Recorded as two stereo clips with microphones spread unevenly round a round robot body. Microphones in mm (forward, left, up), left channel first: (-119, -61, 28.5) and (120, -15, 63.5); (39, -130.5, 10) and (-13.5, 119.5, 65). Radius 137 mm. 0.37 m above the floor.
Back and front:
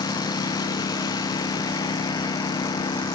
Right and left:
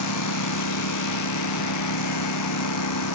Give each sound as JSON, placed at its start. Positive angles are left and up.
{"t": 0.0, "sound": "a lawn mower", "azimuth_deg": -95}